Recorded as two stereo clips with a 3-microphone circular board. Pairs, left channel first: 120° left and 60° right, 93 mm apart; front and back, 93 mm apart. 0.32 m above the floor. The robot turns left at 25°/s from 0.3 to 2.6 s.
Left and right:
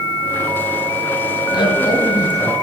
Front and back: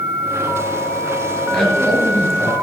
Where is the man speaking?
85° left, 4.5 m; by 2.5 s 60° left, 4.5 m.